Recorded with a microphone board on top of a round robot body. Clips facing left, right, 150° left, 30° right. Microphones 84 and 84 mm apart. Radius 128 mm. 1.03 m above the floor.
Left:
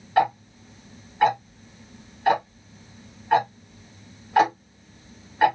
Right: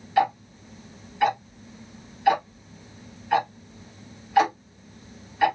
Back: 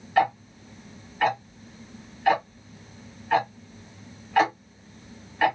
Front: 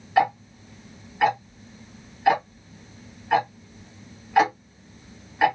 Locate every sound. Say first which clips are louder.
0.2 s ticking: left 1 dB, front 1 dB; 45° left, 1.4 m